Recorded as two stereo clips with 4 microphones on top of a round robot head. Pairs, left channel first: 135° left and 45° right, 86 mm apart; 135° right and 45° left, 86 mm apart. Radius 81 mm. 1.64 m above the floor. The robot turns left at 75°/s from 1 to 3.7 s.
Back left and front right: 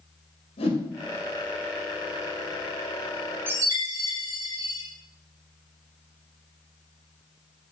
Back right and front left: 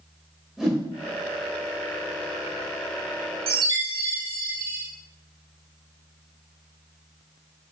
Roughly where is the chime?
Ahead.